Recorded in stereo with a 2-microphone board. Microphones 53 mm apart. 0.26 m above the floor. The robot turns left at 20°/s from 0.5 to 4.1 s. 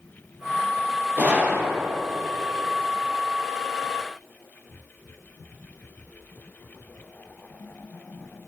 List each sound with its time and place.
1.2 s a gunshot: 35° right (ahead or behind), 3.5 m; by 1.9 s 20° right (ahead or behind), 3.5 m